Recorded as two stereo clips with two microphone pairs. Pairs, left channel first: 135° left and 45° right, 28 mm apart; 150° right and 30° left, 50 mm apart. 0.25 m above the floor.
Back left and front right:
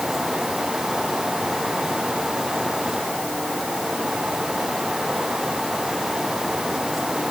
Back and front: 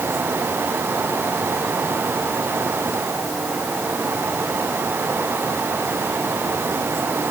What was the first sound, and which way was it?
Only background noise.